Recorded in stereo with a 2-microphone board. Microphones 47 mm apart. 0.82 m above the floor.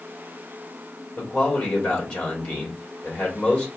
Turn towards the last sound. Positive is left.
turn(degrees=30)  # may be behind; listen again after turning